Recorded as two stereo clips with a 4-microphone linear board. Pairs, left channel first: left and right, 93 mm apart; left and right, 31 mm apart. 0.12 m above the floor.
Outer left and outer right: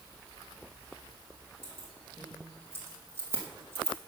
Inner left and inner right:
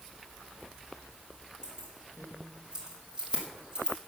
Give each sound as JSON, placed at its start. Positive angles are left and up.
{"t": 1.6, "sound": "keys jangling", "side_deg": -25, "distance_m": 5.5}